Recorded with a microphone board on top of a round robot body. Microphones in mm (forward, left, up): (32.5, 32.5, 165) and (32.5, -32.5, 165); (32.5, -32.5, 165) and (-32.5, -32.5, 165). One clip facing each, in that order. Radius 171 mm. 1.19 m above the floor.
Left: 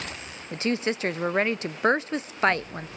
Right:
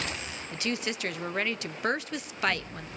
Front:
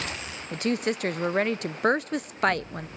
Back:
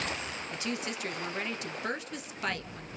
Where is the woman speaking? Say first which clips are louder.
Left 6 dB, front 11 dB; 35° left, 0.9 m.